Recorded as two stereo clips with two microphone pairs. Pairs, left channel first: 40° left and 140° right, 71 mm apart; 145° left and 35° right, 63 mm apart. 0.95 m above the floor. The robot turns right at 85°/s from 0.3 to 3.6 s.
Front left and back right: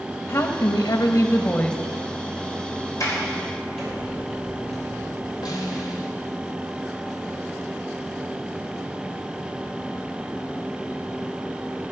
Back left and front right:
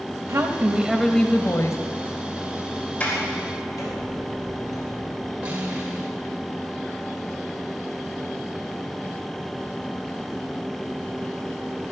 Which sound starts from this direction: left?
A sliding door, at 3.0 s.